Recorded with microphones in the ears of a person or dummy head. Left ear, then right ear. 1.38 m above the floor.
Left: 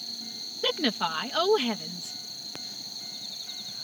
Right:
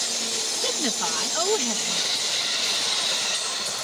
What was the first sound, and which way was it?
A woman speaking, centre (ahead or behind).